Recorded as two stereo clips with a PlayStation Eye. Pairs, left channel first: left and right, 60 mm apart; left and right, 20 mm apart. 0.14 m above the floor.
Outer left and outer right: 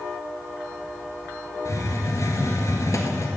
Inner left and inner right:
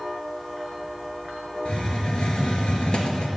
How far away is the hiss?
About 1.9 m.